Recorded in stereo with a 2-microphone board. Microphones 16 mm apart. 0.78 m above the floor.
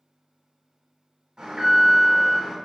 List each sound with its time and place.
1.4 s an alarm: 65° right (ahead or behind), 1.4 m